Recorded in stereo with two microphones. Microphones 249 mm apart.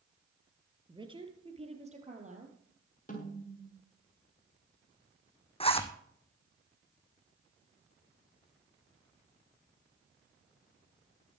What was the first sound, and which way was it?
A woman speaking, 20° right (ahead or behind).